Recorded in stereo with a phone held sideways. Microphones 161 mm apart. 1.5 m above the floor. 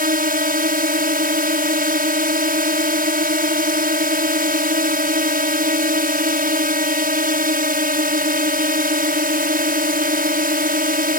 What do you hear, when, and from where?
0.0 s a drone: 65° right (ahead or behind)